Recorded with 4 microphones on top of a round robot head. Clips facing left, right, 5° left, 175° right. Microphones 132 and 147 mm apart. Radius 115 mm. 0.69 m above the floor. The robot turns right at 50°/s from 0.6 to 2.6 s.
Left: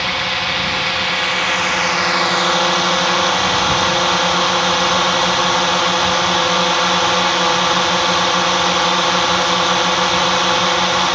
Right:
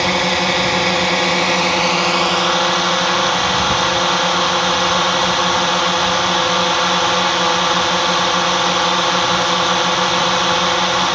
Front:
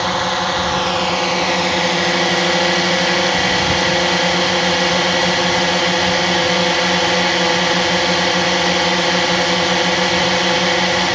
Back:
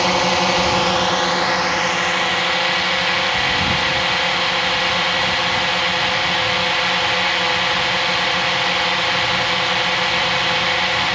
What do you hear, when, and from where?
0.0 s a drone: 100° right; by 11.2 s straight ahead